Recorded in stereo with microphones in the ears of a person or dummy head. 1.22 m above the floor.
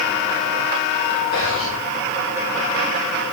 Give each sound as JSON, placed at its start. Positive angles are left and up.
{"t": 1.3, "sound": "whispering", "side_deg": 85, "distance_m": 5.0}